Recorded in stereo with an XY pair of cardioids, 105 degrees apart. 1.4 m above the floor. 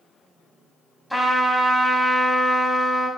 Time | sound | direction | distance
1.1 | a trumpet | straight ahead | 1.7 m